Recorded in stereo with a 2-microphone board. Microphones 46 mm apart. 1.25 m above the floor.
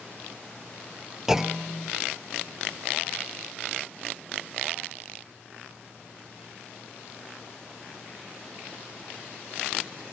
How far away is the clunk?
About 0.5 m.